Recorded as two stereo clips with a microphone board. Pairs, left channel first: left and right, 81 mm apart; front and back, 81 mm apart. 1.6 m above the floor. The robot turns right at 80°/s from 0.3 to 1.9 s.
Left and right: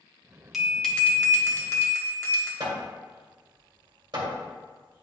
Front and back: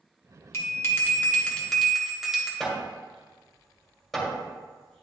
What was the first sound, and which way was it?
A bell, 5° right.